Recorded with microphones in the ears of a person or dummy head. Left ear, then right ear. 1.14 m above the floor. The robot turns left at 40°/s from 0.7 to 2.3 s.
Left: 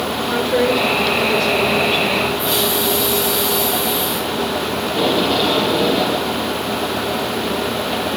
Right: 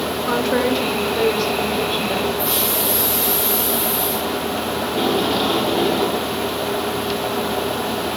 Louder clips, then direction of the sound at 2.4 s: Left 3 dB; 25° right (ahead or behind).